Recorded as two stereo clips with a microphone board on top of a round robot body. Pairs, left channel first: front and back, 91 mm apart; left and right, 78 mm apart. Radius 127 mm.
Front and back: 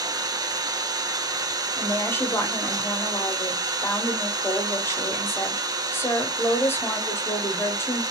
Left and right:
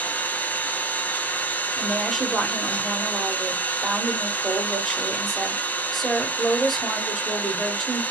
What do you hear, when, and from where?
0.0 s an engine running: 150° left, 0.9 m
1.8 s a woman speaking: 5° left, 1.3 m